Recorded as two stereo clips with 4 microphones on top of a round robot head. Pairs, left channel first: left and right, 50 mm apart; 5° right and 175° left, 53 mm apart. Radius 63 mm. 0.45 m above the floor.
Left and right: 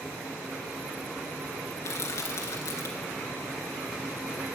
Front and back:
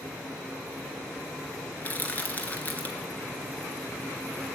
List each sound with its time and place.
1.8 s crushing: 55° left, 1.9 m